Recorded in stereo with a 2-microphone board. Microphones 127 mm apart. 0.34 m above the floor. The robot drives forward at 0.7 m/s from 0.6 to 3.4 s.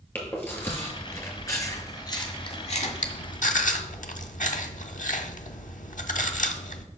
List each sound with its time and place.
0.1 s chewing: 15° left (ahead or behind), 1.9 m; by 6.9 s 75° left (ahead or behind), 0.5 m